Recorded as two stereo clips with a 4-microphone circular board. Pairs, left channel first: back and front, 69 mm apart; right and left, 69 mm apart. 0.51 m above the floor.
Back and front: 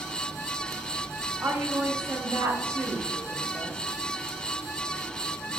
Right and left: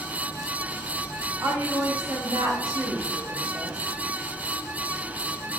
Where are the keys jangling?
No keys jangling in this recording.